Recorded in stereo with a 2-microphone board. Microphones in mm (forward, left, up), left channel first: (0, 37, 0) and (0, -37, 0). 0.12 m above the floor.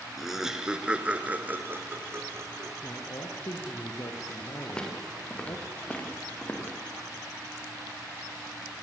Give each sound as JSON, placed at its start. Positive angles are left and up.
{"t": 0.2, "sound": "laughter", "side_deg": 0, "distance_m": 1.7}
{"t": 2.8, "sound": "a man speaking", "side_deg": 60, "distance_m": 3.0}
{"t": 4.7, "sound": "footsteps", "side_deg": 15, "distance_m": 5.0}